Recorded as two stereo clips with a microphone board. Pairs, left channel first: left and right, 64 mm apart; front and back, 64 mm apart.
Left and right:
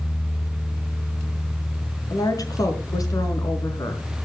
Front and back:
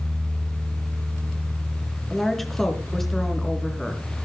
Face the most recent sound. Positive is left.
turn(degrees=85)